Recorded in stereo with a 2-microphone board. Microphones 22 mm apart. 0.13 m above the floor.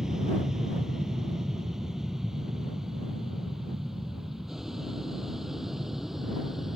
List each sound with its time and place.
0.0 s an aircraft: 25° right (ahead or behind); by 6.8 s 15° right (ahead or behind)